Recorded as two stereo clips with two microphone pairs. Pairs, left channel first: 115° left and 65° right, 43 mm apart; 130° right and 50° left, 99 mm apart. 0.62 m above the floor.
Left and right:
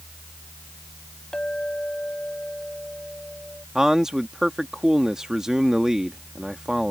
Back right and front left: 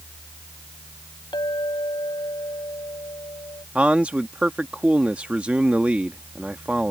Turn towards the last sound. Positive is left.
turn(degrees=-20)